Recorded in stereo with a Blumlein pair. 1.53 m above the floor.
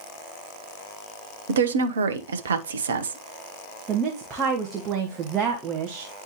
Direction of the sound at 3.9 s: 25° right.